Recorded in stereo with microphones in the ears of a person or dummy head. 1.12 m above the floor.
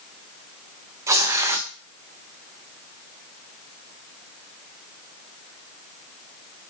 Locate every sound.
1.1 s tearing paper: 15° right (ahead or behind), 0.5 m